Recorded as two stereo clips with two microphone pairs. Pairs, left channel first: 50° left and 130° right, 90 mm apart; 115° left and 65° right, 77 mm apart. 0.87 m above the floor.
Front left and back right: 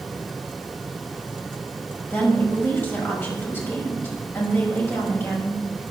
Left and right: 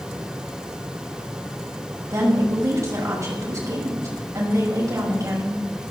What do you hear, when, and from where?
2.1 s a woman speaking: 20° right, 5.5 m